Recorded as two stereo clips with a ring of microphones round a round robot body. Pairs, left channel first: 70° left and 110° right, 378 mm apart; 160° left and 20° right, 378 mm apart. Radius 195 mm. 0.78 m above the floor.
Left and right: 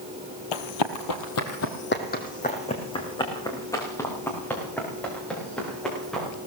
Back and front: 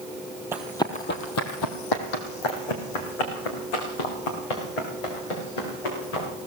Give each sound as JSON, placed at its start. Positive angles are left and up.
{"t": 0.5, "sound": "running footsteps", "azimuth_deg": 60, "distance_m": 1.2}